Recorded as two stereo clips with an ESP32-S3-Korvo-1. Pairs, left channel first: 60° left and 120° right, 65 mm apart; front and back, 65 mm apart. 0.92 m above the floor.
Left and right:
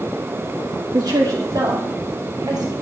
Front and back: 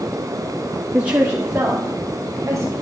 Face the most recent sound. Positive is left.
turn(degrees=-125)